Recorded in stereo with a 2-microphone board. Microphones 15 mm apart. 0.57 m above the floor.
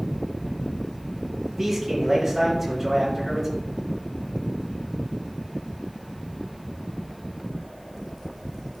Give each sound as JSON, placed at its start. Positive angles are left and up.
{"t": 1.6, "sound": "a man speaking", "side_deg": -10, "distance_m": 4.5}